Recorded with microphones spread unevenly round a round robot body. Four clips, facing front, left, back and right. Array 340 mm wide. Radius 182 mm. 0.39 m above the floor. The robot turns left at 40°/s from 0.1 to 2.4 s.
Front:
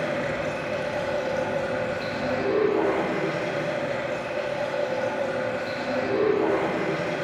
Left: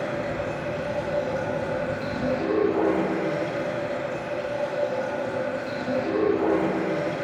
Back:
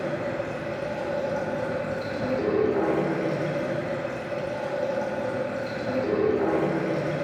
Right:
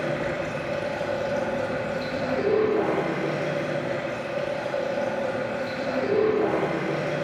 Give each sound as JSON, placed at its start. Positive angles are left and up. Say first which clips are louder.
{"t": 0.0, "sound": "running water", "louder": "right 1 dB, front 2 dB", "azimuth_deg": -55, "distance_m": 5.0}